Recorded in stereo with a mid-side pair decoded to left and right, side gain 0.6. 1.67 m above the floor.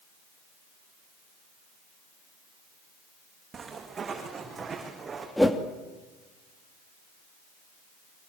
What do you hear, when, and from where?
3.5 s footsteps: 30° right, 7.5 m; by 5.3 s 25° right, 7 m
5.4 s a whoosh: 5° left, 2.5 m